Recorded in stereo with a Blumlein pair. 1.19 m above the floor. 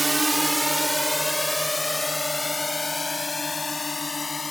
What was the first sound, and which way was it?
A drone, 5° right.